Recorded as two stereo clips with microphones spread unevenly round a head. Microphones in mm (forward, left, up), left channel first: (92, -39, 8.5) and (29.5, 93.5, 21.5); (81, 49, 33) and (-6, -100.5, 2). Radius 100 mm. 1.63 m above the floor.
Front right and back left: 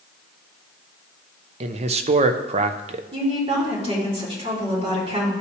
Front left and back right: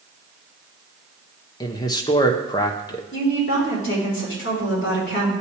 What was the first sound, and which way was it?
A man speaking, 110° left.